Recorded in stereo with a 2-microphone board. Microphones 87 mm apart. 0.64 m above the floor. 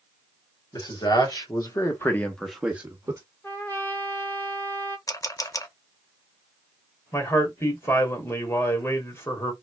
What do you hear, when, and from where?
0.7 s a man speaking: 60° left (ahead or behind), 1.8 m; by 3.2 s 35° right (ahead or behind), 1.0 m
3.4 s a trumpet: 30° left (ahead or behind), 1.1 m
5.1 s a camera shutter: 45° left (ahead or behind), 0.6 m
7.1 s a man speaking: 35° left (ahead or behind), 1.3 m